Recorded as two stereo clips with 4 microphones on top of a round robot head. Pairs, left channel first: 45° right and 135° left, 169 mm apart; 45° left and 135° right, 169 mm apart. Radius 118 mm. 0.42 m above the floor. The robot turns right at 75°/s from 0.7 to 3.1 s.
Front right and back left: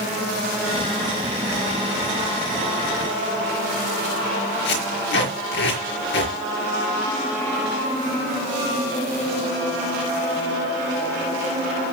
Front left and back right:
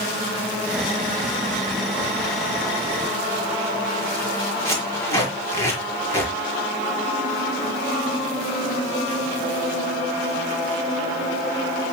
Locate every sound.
4.7 s tape being pulled: 30° right, 5.5 m